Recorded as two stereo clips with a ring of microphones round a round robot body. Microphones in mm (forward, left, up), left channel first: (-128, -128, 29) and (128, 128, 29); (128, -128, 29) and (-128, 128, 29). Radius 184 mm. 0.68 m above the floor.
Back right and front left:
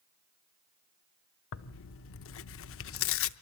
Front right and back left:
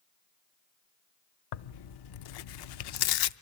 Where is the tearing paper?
80° right, 0.6 m.